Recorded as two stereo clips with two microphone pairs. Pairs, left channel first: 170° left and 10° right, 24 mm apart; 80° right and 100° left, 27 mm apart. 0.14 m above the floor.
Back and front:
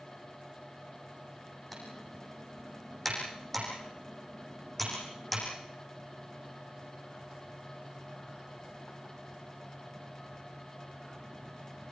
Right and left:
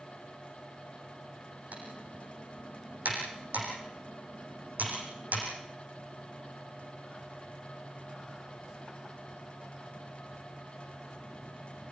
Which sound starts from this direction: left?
Typing on a keyboard, at 1.7 s.